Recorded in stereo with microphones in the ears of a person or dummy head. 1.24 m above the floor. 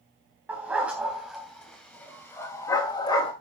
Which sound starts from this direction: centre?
A dog barking, at 0.5 s.